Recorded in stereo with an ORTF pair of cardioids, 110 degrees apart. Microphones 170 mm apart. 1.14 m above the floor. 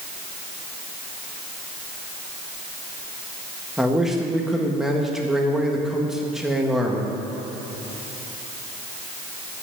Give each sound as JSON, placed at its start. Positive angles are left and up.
{"t": 3.8, "sound": "a man speaking", "azimuth_deg": -5, "distance_m": 1.5}